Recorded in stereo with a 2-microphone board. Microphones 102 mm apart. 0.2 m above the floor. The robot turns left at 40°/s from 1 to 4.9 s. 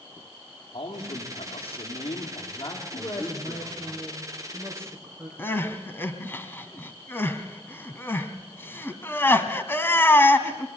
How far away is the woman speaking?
About 6 m.